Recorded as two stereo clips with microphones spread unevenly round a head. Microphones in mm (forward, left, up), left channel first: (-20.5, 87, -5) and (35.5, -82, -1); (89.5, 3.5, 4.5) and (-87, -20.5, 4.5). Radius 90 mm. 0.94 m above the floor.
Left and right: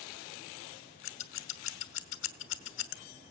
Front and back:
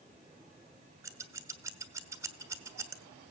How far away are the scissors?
About 1.1 m.